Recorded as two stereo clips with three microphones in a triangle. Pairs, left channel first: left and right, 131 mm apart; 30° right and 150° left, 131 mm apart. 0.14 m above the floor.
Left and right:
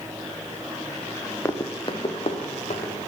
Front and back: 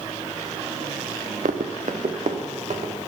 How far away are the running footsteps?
About 0.8 m.